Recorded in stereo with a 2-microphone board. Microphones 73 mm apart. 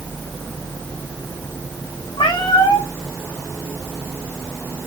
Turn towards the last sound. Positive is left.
turn(degrees=80)